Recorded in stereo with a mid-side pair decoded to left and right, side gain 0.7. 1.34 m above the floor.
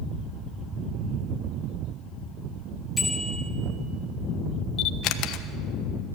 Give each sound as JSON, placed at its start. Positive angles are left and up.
{"t": 3.0, "sound": "a bicycle bell", "azimuth_deg": 10, "distance_m": 4.0}
{"t": 4.8, "sound": "a camera shutter", "azimuth_deg": 60, "distance_m": 1.2}